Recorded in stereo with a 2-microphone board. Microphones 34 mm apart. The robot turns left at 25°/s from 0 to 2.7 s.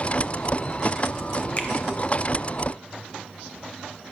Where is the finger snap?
35° left (ahead or behind), 1.3 m; by 1.7 s 40° left (ahead or behind), 1.3 m.